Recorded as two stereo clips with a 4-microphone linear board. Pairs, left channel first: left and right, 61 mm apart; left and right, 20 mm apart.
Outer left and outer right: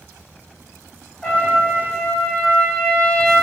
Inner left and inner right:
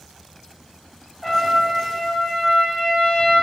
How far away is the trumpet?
About 1.7 m.